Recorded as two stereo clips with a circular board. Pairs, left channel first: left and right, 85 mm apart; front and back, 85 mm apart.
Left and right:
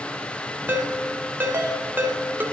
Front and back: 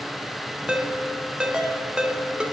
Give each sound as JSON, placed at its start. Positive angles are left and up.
{"t": 0.7, "sound": "a ringtone", "azimuth_deg": -115, "distance_m": 0.8}